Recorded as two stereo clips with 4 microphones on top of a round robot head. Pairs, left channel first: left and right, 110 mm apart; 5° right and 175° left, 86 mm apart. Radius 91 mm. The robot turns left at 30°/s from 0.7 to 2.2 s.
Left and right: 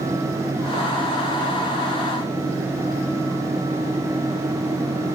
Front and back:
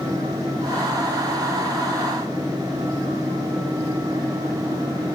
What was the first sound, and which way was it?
Only background noise.